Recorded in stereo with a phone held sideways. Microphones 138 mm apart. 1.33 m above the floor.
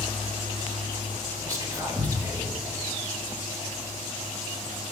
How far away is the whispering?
About 1.5 m.